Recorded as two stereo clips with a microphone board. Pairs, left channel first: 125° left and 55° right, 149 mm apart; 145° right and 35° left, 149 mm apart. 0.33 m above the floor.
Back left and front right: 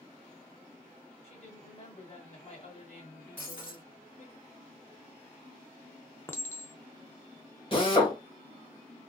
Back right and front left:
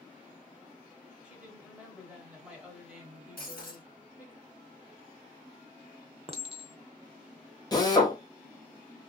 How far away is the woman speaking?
About 1.5 m.